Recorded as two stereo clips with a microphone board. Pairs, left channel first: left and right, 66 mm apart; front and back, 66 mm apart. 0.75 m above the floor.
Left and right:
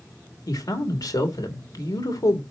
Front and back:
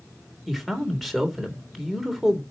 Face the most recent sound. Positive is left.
turn(degrees=90)